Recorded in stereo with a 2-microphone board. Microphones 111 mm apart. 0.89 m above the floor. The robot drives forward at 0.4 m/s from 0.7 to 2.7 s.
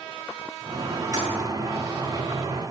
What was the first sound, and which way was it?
A toilet flushing, 35° right (ahead or behind).